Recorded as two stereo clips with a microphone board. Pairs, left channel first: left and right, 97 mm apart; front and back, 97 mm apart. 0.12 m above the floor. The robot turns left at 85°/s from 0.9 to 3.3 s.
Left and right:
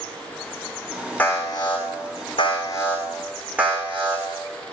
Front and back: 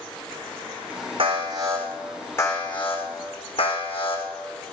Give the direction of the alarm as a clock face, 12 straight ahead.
6 o'clock.